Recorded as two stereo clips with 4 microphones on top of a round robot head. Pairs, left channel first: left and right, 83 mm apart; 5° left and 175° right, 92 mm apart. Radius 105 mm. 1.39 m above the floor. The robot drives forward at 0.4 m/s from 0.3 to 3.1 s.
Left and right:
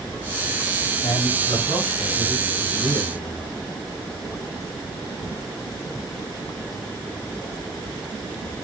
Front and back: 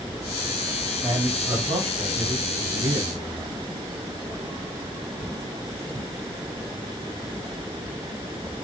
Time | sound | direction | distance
1.0 | a man speaking | 140° left | 2 m